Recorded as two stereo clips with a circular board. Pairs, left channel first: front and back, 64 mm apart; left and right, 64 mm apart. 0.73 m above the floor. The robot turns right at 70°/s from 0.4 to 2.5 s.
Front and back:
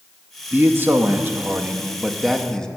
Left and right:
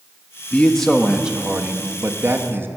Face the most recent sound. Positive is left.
turn(degrees=-75)